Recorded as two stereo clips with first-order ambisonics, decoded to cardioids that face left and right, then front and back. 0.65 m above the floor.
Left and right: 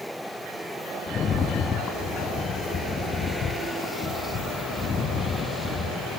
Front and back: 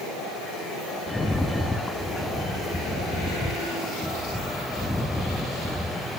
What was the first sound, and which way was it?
A rattle, 80° left.